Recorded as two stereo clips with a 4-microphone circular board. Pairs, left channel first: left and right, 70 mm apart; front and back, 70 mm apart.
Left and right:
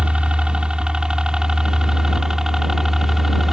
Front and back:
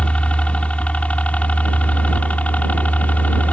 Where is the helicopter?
40° right; by 3.5 s 10° right.